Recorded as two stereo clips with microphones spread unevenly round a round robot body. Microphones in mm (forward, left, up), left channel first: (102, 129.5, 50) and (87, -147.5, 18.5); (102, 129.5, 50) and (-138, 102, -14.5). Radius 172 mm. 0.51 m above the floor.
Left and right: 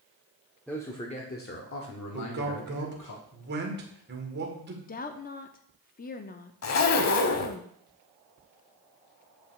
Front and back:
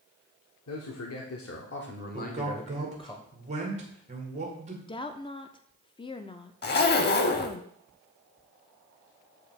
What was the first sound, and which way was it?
A man speaking, 5° right.